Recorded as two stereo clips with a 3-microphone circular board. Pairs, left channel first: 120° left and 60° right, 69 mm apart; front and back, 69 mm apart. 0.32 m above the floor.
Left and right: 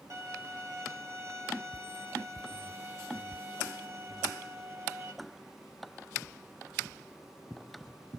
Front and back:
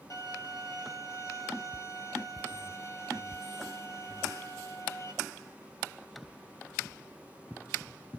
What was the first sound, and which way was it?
A violin, 20° right.